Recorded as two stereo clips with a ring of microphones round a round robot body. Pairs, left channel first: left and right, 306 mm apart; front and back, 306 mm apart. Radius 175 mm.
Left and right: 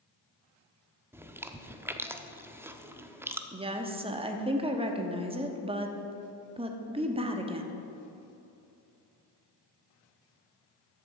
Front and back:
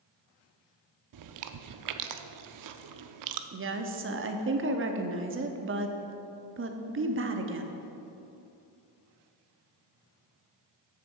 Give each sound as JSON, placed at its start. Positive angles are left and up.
{"t": 1.1, "sound": "chewing", "azimuth_deg": -170, "distance_m": 0.7}
{"t": 3.5, "sound": "a woman speaking", "azimuth_deg": -155, "distance_m": 1.1}